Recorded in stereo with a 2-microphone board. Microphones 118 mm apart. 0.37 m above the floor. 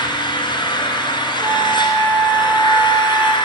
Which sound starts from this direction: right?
A flute, at 1.4 s.